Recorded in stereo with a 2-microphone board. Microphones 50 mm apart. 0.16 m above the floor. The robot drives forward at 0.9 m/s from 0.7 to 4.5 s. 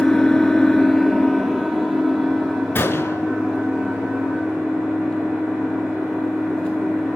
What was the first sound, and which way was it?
An engine running, 10° left (ahead or behind).